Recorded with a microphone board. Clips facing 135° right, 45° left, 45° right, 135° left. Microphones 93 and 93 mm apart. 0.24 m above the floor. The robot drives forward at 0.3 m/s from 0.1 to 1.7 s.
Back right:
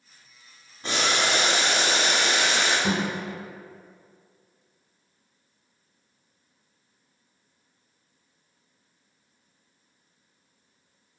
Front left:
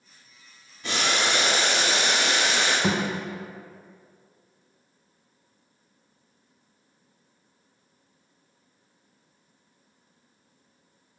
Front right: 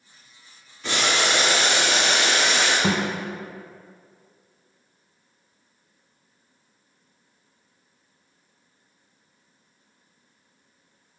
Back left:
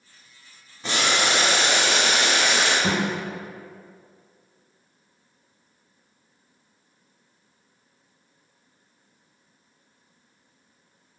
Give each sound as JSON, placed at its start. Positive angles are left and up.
{"t": 0.8, "sound": "boiling", "azimuth_deg": -175, "distance_m": 1.0}
{"t": 2.8, "sound": "a thud", "azimuth_deg": 15, "distance_m": 0.6}